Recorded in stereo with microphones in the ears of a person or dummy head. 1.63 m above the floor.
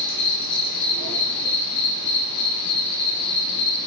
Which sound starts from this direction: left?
An insect, at 0.0 s.